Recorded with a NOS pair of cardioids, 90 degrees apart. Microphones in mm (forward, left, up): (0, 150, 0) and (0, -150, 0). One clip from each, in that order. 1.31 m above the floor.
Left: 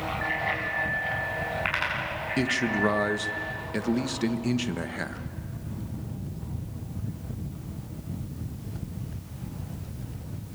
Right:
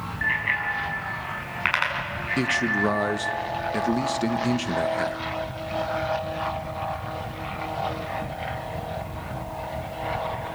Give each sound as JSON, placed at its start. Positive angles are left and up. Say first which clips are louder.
{"t": 0.2, "sound": "a bicycle bell", "louder": "right 6 dB", "azimuth_deg": -40, "distance_m": 6.5}
{"t": 2.4, "sound": "a man speaking", "louder": "right 3 dB", "azimuth_deg": -5, "distance_m": 1.2}